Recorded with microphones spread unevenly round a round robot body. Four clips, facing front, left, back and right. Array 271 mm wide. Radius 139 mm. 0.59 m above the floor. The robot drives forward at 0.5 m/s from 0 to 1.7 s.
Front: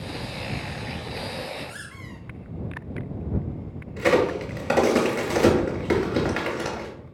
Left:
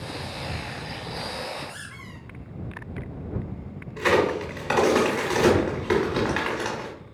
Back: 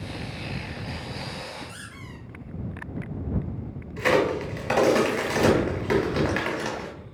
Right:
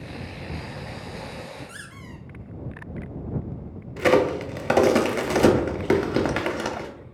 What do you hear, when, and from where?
1.7 s a squeak: 85° right, 0.8 m
4.0 s a crack: 85° right, 0.5 m